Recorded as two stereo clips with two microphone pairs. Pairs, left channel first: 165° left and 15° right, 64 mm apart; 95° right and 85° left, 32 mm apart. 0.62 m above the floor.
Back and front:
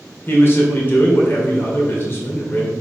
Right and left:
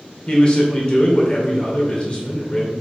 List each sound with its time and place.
0.3 s a man speaking: 150° right, 2 m